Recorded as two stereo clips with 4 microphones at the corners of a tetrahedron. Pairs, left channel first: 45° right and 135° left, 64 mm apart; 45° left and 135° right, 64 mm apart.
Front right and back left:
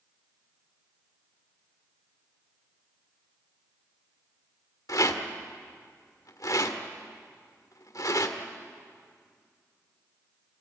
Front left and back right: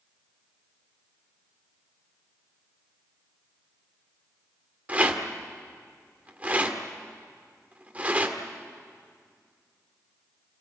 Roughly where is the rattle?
Right.